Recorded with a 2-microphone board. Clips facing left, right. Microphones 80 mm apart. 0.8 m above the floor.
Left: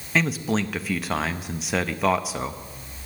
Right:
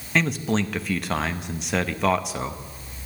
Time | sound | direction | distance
0.1 | a man speaking | centre (ahead or behind) | 0.7 m